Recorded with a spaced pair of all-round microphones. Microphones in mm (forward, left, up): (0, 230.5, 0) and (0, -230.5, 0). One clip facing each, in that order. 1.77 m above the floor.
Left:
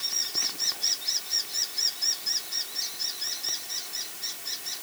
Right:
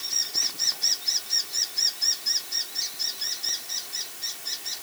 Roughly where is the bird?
I don't hear a bird.